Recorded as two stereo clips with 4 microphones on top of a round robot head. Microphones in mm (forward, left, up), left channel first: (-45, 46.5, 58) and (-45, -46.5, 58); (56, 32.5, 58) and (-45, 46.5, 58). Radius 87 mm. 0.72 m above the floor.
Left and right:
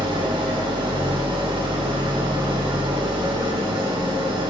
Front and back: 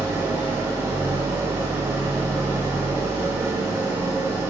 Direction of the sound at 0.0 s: 120° right.